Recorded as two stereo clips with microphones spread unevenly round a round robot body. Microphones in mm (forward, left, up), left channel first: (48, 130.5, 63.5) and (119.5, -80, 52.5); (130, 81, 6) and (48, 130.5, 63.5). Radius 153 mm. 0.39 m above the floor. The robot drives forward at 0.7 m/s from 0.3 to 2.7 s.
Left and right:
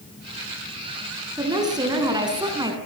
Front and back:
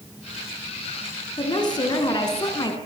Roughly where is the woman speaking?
Ahead.